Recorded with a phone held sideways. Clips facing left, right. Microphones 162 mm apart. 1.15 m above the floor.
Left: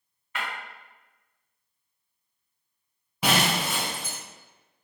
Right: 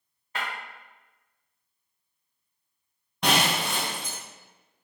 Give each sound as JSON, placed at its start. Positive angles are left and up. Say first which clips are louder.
{"t": 0.3, "sound": "breaking glass", "louder": "even", "side_deg": -35, "distance_m": 1.1}
{"t": 3.2, "sound": "breaking glass", "louder": "even", "side_deg": 5, "distance_m": 0.5}